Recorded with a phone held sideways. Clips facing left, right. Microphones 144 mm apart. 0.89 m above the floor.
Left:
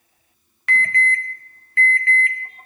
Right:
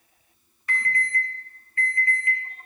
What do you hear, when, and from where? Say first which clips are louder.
0.7 s an alarm: left 6 dB; 80° left, 0.8 m